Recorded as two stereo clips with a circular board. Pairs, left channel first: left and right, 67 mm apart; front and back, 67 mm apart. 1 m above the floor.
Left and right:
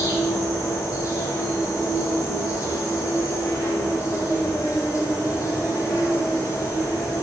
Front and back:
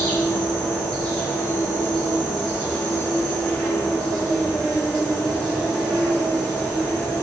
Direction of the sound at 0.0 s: 70° left.